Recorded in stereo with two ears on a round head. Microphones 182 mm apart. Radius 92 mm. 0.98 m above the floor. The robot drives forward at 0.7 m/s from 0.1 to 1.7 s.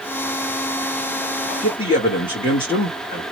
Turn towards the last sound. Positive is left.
turn(degrees=25)  # may be behind; listen again after turning